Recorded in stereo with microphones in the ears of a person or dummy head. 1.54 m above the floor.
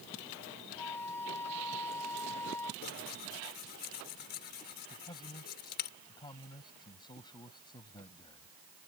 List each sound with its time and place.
0.8 s a flute: 20° left (ahead or behind)
2.8 s tearing paper: 55° left (ahead or behind)
4.9 s a man speaking: 25° left (ahead or behind)